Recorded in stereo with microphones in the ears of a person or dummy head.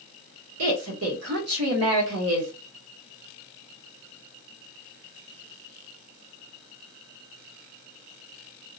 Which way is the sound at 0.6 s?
75° right (ahead or behind).